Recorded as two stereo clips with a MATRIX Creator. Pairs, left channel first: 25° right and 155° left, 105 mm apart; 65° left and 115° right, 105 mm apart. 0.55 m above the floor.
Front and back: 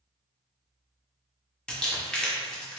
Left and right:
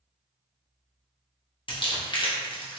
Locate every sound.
1.7 s crumpling: 55° left, 0.8 m